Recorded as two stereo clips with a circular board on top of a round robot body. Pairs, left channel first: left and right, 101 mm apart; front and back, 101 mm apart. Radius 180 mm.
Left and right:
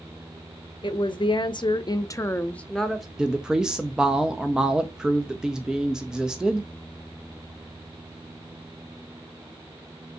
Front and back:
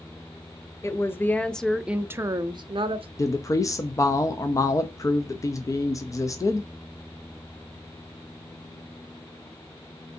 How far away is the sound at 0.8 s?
About 0.9 m.